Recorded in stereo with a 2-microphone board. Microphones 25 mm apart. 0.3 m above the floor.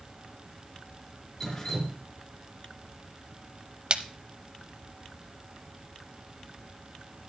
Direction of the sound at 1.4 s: 20° left (ahead or behind).